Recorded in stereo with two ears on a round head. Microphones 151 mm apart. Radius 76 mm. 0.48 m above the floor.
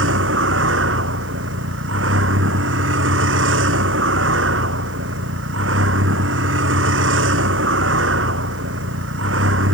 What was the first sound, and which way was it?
A vehicle, 90° right.